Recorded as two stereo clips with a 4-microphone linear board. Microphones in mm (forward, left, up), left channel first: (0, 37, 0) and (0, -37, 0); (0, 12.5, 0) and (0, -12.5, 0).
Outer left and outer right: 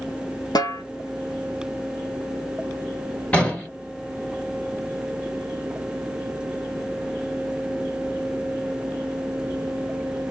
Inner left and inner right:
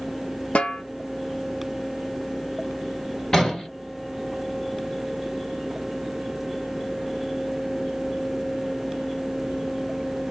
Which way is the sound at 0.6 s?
60° left (ahead or behind).